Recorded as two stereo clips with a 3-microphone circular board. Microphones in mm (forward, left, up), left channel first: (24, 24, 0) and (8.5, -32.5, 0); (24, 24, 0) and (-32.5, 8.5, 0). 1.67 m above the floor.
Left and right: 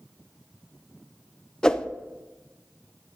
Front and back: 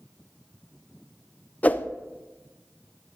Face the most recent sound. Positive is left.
turn(degrees=15)